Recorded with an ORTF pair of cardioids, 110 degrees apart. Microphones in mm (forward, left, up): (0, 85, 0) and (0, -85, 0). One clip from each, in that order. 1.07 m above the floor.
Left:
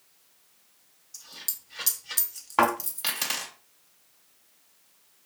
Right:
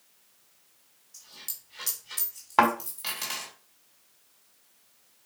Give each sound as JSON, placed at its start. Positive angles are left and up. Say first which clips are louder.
{"t": 1.1, "sound": "a dropped coin", "louder": "left 4 dB", "azimuth_deg": 35, "distance_m": 1.5}
{"t": 2.6, "sound": "a thud", "louder": "right 1 dB", "azimuth_deg": -20, "distance_m": 1.8}